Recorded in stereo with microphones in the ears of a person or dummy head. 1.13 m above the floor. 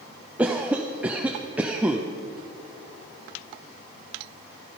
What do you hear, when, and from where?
0.4 s a cough: 5° right (ahead or behind), 0.6 m